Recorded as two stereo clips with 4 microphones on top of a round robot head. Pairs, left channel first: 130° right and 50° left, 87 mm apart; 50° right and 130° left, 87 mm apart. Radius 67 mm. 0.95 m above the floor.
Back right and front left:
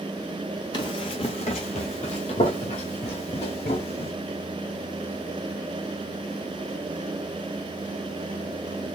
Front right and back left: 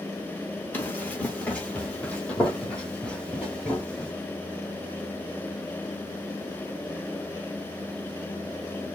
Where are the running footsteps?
110° right, 1.0 m; by 4.1 s 130° right, 2.5 m.